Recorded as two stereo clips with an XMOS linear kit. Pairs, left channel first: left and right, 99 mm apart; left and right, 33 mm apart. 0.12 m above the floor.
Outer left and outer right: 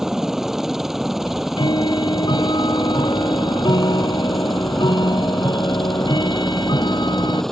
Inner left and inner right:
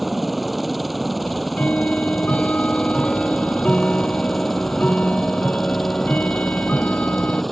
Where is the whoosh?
I don't hear a whoosh.